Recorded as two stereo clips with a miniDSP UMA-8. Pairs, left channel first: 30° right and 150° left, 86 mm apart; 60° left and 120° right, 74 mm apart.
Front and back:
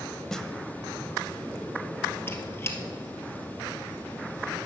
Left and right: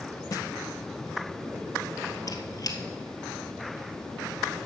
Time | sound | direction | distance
0.3 | a snare drum | 50° left | 0.7 m
2.3 | a squeak | 30° left | 1.2 m